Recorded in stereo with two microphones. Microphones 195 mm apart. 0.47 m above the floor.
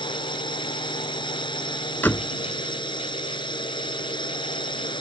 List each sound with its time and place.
0.0 s a drone: 25° left (ahead or behind)
2.0 s a door slam: 10° left (ahead or behind)